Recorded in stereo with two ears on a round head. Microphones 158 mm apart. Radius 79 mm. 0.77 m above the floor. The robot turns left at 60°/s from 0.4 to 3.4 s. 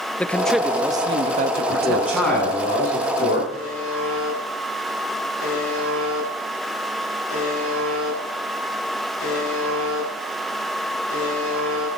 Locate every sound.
0.2 s a man speaking: 10° left, 0.6 m; by 2.3 s 105° right, 0.6 m
1.7 s a man speaking: 150° right, 8 m; by 3.4 s 105° left, 8 m
3.5 s a buzzer: 75° left (ahead or behind), 9 m